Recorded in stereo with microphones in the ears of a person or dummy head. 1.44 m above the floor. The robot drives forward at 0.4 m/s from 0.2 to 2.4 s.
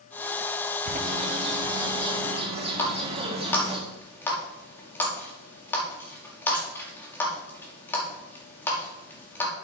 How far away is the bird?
About 1.3 m.